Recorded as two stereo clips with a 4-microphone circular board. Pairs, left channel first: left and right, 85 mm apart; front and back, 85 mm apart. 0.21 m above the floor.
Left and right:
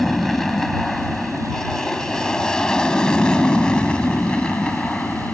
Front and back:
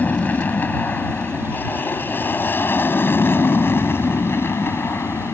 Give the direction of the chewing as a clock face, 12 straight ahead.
I don't hear chewing.